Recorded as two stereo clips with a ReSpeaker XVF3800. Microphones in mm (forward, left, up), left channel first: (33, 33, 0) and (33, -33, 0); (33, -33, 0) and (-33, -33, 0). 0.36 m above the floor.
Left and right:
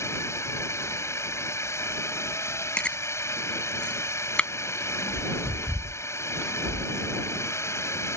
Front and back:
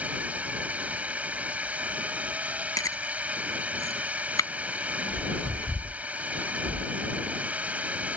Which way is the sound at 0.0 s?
115° left.